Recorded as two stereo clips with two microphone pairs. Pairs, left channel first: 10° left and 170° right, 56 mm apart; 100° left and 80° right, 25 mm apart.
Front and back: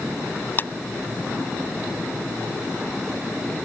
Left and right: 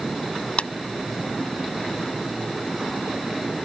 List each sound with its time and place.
0.6 s a clap: 65° left